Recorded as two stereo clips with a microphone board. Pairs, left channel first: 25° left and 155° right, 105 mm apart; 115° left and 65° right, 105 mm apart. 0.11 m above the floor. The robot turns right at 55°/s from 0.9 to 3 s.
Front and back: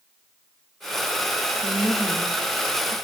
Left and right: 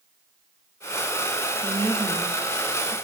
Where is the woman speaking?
125° right, 1.7 m; by 3.0 s 50° right, 1.7 m.